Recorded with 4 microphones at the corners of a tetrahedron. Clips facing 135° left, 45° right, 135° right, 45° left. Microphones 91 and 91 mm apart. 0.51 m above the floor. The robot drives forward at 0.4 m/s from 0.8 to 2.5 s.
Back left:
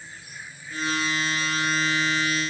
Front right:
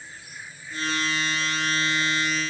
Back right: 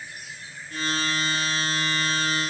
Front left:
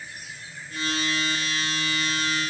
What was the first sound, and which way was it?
Only background noise.